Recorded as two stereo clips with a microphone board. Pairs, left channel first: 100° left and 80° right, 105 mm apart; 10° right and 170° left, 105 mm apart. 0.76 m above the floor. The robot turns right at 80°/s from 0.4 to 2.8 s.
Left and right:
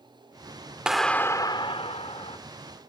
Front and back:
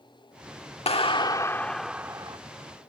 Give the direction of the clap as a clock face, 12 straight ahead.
12 o'clock.